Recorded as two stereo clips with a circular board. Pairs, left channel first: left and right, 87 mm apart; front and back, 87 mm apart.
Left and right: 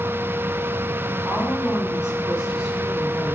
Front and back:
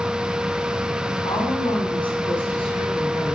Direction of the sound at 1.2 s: 15° right.